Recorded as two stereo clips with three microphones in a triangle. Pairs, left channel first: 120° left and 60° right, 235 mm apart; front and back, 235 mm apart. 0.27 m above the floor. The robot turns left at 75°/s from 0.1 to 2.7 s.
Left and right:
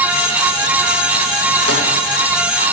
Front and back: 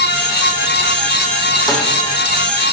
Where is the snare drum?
75° right, 9 m; by 1.9 s 85° right, 9 m.